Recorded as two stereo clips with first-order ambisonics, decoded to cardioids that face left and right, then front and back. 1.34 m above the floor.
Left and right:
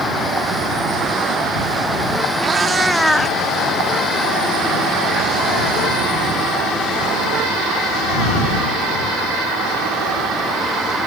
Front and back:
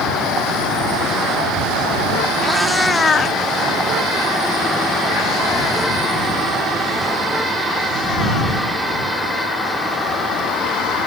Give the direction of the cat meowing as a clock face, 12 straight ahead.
4 o'clock.